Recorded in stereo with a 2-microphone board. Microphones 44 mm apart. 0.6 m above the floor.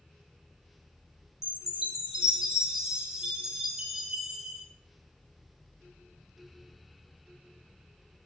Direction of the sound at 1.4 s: 15° right (ahead or behind).